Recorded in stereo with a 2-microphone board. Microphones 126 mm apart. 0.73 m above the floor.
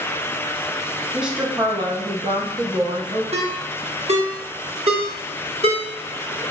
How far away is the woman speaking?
About 0.6 m.